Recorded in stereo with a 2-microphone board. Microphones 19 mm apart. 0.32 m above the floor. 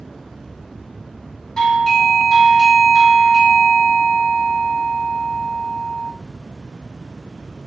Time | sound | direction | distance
1.6 | a doorbell | 35° left (ahead or behind) | 2.0 m